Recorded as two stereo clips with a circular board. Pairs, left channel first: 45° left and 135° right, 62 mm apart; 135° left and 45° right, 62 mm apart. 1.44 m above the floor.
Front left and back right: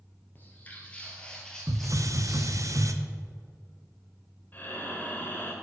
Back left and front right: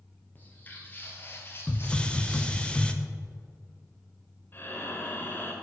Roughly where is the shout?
No shout in this recording.